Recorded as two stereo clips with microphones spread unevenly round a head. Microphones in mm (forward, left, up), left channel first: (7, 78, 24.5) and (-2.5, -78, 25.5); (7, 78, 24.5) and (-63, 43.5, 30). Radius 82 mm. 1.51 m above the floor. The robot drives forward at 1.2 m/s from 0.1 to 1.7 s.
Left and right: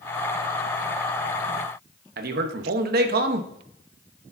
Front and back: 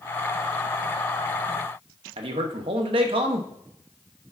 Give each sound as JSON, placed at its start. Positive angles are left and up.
{"t": 2.2, "sound": "a man speaking", "azimuth_deg": -125, "distance_m": 1.0}